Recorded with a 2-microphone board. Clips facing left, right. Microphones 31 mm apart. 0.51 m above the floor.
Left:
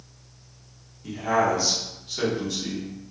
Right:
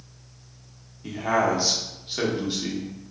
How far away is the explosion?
No explosion in this recording.